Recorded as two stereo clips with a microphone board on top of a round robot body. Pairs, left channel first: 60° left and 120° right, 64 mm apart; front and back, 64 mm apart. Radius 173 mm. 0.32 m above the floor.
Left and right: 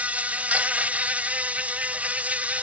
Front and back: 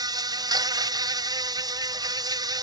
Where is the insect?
170° left.